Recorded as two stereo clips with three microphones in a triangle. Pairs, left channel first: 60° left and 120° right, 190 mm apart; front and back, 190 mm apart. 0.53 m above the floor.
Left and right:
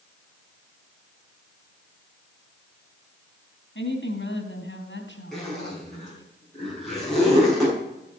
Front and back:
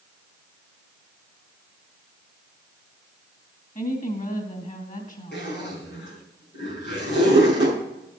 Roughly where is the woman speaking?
Ahead left.